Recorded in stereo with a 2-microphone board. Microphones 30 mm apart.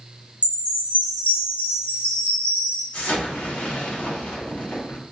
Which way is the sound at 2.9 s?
65° left (ahead or behind).